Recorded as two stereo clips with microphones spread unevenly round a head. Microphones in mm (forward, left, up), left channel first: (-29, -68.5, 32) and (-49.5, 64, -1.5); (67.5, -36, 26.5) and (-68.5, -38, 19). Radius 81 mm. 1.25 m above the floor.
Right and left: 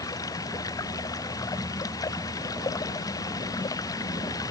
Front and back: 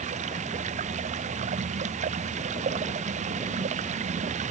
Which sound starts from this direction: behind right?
Running water, at 0.0 s.